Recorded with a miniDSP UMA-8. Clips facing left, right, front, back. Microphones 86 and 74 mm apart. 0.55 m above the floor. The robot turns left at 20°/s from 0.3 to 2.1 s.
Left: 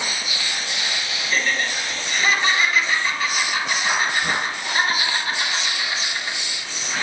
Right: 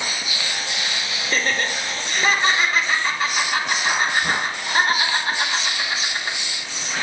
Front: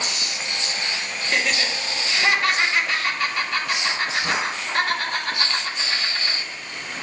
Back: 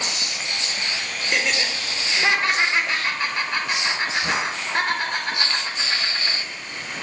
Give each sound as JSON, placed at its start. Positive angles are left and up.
{"t": 1.2, "sound": "laughter", "azimuth_deg": -105, "distance_m": 1.5}